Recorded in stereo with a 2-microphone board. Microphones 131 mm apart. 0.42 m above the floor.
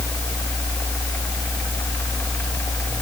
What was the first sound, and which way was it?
Only background noise.